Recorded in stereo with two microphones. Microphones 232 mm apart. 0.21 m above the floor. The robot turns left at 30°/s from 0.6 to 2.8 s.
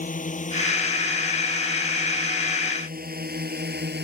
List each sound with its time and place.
0.0 s a drone: 35° left (ahead or behind); by 4.1 s 45° right (ahead or behind)